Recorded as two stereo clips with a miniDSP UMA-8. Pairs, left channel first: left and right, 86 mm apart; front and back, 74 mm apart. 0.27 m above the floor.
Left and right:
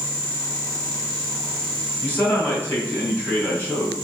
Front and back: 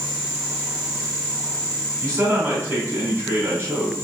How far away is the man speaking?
About 2 m.